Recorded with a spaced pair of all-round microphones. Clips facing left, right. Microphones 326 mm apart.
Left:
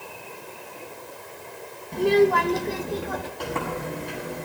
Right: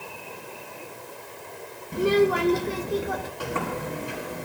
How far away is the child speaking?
About 0.8 m.